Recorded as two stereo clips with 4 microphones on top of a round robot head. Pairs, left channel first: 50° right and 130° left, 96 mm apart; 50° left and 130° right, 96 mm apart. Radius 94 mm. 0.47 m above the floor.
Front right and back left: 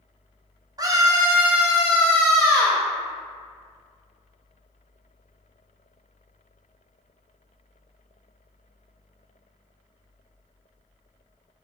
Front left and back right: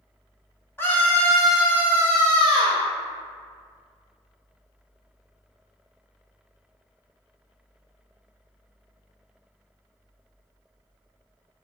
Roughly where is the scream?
Left.